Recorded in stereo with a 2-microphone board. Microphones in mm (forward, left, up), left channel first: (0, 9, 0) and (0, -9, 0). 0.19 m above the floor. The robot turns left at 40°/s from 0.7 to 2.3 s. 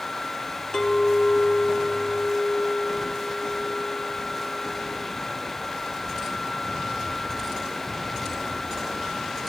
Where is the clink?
70° left, 1.8 m; by 5.1 s 5° left, 1.8 m.